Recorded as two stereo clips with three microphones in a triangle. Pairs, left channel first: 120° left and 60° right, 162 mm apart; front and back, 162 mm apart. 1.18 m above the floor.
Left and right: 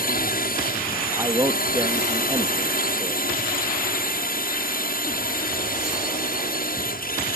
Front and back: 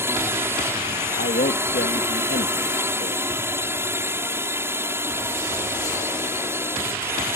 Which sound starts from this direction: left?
A drone, at 0.0 s.